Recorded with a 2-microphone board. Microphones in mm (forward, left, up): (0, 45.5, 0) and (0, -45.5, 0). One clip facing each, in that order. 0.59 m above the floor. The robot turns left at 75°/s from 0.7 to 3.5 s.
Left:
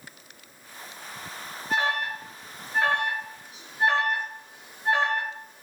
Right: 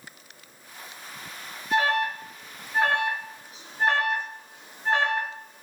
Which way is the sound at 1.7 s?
40° left (ahead or behind).